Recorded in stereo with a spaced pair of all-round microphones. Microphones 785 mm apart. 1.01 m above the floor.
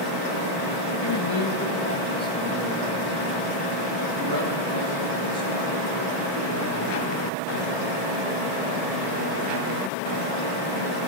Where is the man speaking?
35° left (ahead or behind), 1.4 m; by 7.1 s 55° right (ahead or behind), 3 m.